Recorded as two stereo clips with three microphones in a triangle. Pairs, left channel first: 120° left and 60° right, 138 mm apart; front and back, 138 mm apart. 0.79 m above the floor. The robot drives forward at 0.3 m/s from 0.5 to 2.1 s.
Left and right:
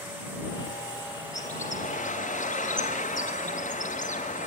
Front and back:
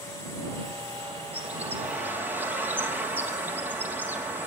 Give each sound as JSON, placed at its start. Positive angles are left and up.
{"t": 1.3, "sound": "a bird", "azimuth_deg": 100, "distance_m": 3.5}